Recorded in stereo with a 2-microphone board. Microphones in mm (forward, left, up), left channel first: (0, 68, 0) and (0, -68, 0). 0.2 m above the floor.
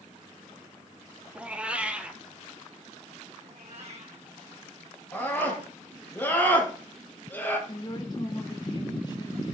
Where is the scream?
15° left (ahead or behind), 5.5 m.